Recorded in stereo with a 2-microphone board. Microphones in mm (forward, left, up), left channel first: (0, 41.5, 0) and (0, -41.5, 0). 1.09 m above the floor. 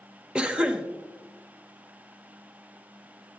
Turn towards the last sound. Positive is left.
turn(degrees=-15)  # may be behind; listen again after turning